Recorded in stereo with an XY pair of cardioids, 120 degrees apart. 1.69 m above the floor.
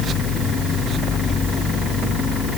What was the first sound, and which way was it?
Only background noise.